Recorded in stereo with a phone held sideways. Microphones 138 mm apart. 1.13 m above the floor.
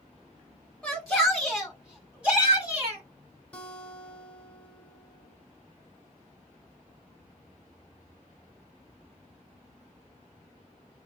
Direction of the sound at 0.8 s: 5° left (ahead or behind).